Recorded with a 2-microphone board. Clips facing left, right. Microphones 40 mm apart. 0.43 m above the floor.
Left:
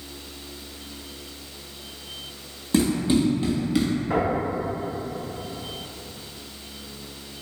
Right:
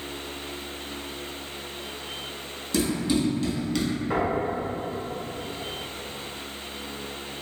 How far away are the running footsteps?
About 1.3 m.